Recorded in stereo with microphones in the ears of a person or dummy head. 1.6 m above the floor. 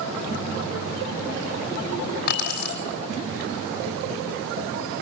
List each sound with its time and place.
2.3 s keys jangling: 55° left (ahead or behind), 3 m